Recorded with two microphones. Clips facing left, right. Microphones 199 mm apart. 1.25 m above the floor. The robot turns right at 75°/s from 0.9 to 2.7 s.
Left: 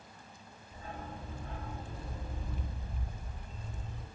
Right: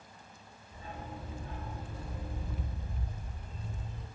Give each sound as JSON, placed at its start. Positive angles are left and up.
{"t": 0.7, "sound": "a dog barking", "azimuth_deg": 50, "distance_m": 1.7}